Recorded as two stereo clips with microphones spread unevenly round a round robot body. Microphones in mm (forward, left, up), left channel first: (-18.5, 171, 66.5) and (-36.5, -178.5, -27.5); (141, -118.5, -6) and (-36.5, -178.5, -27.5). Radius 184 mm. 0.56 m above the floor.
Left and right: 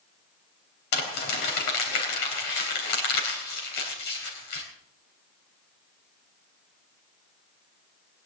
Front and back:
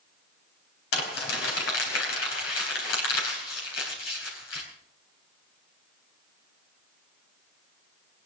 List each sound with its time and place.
0.9 s crumpling: 35° left, 3.5 m